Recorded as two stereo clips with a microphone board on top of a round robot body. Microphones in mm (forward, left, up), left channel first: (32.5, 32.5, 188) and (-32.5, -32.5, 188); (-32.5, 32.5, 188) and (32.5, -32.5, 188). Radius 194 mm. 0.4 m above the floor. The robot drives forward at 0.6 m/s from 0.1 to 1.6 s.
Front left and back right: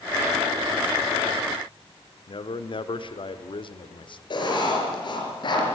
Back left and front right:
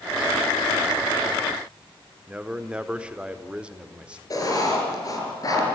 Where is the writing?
80° left, 5 m.